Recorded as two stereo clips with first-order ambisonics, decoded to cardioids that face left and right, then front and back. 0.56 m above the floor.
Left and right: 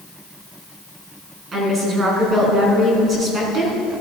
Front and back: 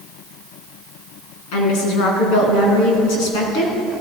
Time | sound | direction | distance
1.5 | a woman speaking | 20° right | 4.5 m